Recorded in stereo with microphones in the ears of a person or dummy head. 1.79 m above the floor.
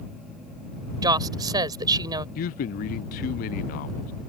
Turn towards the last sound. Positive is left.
turn(degrees=40)  # may be behind; listen again after turning